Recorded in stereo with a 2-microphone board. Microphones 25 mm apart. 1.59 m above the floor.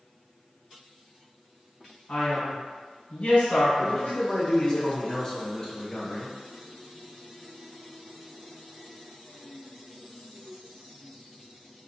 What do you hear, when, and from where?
2.1 s a man speaking: 65° left (ahead or behind), 1.4 m
3.8 s a man speaking: 25° left (ahead or behind), 0.9 m